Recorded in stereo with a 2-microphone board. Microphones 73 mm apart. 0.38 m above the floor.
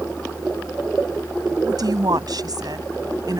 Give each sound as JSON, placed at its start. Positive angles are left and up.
{"t": 1.6, "sound": "a woman speaking", "side_deg": -70}